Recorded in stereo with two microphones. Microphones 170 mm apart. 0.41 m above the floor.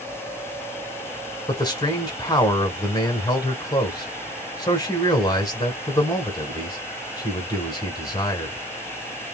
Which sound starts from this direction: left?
A man speaking, at 1.5 s.